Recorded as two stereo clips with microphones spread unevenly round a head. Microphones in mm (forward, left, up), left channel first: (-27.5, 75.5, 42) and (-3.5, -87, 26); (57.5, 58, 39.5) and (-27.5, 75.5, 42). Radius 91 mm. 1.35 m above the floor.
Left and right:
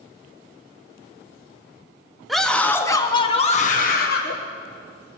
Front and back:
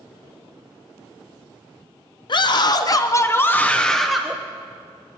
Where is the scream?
5° left, 0.9 m; by 4.4 s 85° left, 0.9 m.